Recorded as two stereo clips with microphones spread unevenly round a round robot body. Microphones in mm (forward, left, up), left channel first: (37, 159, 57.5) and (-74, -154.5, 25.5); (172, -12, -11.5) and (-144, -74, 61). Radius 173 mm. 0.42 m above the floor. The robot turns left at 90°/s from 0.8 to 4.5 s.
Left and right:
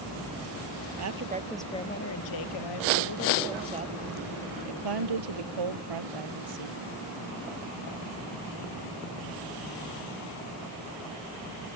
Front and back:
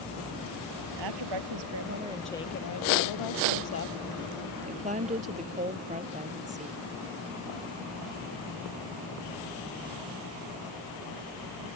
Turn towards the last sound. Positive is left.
turn(degrees=-100)